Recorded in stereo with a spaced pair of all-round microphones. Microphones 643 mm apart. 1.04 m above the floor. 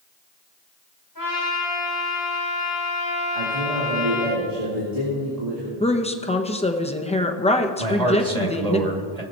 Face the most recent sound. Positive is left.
turn(degrees=-80)